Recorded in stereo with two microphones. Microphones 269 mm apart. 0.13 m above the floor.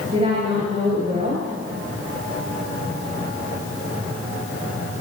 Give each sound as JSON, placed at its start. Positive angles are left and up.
{"t": 0.1, "sound": "a woman speaking", "side_deg": -25, "distance_m": 7.5}